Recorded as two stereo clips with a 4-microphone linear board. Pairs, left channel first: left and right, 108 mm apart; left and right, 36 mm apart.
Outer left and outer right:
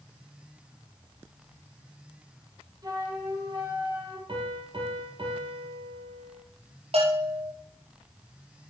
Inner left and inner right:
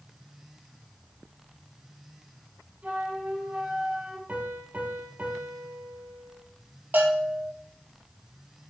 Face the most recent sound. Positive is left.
turn(degrees=-65)  # may be behind; listen again after turning